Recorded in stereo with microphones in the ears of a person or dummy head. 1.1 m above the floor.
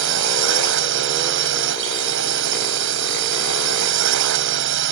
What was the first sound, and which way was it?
A drone, 70° right (ahead or behind).